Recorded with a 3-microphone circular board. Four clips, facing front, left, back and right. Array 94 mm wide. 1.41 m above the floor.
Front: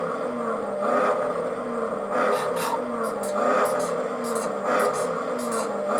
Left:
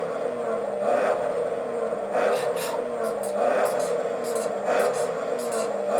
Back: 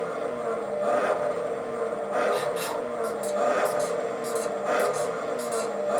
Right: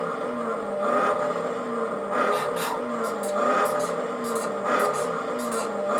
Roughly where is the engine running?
Ahead right.